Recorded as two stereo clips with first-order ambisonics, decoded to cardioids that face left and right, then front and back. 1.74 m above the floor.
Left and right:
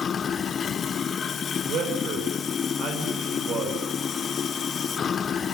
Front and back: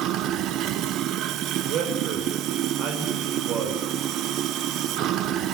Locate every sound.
0.0 s running water: 150° left, 0.8 m
1.7 s a man speaking: 135° right, 5.5 m